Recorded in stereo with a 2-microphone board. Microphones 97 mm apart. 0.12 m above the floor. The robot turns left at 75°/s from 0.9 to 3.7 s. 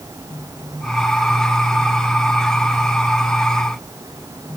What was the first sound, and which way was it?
Only background noise.